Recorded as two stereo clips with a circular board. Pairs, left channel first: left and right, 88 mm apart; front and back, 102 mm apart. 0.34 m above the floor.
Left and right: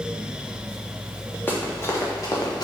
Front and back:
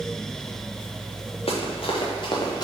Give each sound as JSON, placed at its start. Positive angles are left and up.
{"t": 1.5, "sound": "running footsteps", "azimuth_deg": 25, "distance_m": 2.5}